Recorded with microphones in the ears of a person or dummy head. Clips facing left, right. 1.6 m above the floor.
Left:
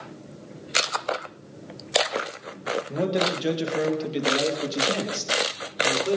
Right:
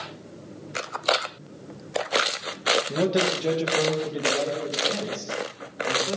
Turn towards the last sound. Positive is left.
turn(degrees=75)  # may be behind; listen again after turning